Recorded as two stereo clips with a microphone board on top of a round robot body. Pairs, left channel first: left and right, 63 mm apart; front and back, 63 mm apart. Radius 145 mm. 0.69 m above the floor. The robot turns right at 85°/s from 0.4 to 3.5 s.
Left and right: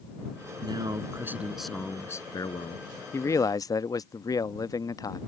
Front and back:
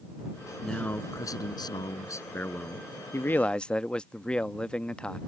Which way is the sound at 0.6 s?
90° right.